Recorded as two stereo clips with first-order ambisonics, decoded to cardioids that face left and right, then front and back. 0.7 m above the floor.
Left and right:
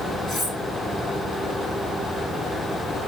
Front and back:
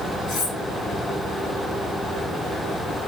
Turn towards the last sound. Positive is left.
turn(degrees=40)